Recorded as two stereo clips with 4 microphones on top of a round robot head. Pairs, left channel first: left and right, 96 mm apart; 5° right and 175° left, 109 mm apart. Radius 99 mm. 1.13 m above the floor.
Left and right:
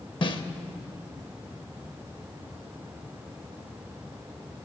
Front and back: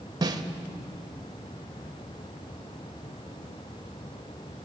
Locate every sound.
0.2 s a snare drum: 125° left, 0.9 m